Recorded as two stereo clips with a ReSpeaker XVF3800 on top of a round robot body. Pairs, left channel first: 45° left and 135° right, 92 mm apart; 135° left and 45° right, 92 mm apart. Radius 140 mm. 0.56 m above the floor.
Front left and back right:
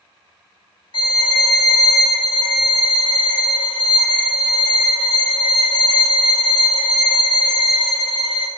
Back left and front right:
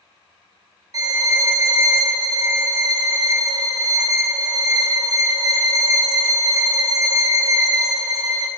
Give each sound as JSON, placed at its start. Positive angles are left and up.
{"t": 0.9, "sound": "a violin", "azimuth_deg": 5, "distance_m": 0.8}